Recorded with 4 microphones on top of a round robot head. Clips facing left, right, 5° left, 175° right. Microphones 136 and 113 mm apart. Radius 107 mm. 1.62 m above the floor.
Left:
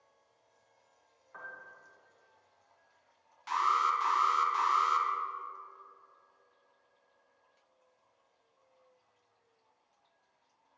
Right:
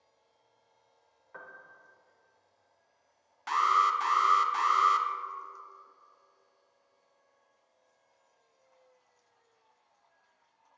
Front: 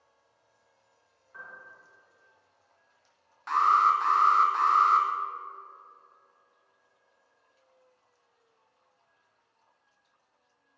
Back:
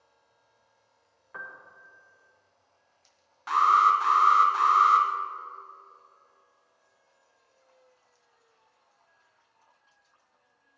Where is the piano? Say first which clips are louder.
Even, back 4 dB; 150° right, 0.7 m.